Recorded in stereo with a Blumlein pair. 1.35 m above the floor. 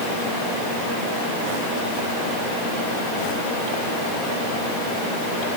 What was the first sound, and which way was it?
Only background noise.